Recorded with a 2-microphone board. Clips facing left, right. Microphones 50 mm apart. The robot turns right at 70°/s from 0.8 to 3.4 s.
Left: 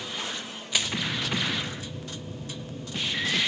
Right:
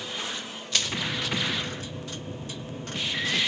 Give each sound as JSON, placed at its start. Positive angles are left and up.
{"t": 0.7, "sound": "crushing", "side_deg": 15, "distance_m": 0.5}